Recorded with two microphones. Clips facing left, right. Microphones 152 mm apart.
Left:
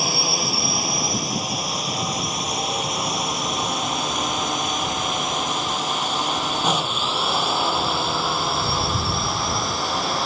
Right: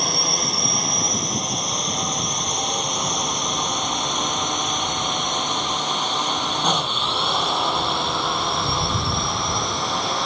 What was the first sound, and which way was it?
A drone, 5° left (ahead or behind).